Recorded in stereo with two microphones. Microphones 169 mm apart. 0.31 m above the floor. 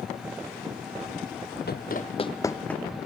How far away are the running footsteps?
About 0.8 m.